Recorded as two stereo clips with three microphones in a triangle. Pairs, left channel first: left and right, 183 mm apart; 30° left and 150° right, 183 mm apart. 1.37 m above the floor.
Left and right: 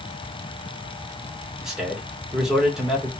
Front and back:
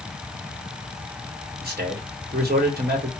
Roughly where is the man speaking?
Behind.